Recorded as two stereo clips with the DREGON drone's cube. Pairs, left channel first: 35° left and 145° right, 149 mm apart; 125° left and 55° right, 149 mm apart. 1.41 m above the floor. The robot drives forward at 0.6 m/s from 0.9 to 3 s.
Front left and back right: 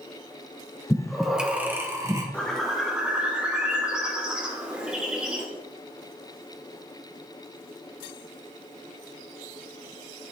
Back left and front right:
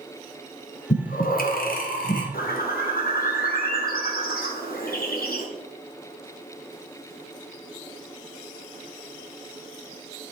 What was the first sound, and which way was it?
Breathing, 115° left.